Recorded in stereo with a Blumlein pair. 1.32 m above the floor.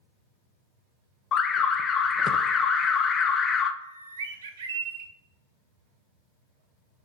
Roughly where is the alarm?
Ahead left.